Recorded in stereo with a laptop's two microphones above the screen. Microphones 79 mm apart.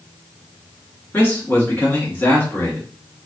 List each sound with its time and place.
1.1 s a man speaking: 25° left (ahead or behind), 2.5 m